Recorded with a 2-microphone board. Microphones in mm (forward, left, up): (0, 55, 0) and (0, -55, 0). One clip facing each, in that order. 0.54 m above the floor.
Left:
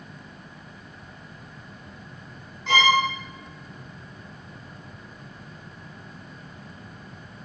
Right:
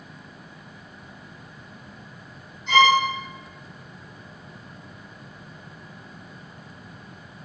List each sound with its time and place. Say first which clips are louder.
2.7 s a violin: right 3 dB; 85° left, 2.5 m